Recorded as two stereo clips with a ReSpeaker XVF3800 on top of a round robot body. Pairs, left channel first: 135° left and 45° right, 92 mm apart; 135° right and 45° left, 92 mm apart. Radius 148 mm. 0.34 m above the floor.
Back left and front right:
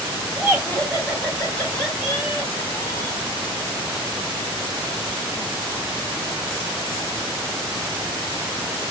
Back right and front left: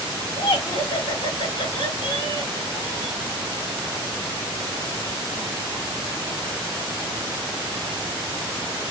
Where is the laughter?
140° right, 3.5 m.